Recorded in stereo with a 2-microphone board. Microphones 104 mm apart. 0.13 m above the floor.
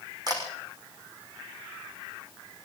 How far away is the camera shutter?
About 6 m.